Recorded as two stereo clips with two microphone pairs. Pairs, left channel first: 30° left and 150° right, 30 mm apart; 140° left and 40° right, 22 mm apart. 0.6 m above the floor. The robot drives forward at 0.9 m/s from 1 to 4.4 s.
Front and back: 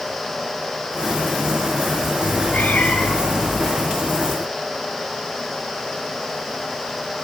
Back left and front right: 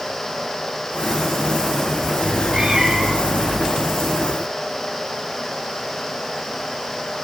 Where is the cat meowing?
15° left, 4.5 m; by 3.7 s 20° left, 3 m.